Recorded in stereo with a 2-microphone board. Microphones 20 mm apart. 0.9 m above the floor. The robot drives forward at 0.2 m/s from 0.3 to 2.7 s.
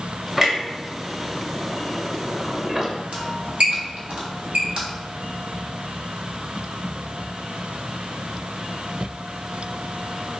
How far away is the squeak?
About 1.1 m.